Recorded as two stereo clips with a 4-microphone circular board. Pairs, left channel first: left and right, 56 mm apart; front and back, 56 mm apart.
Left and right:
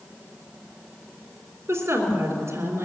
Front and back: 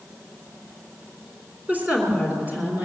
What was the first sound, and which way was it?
A woman speaking, 125° right.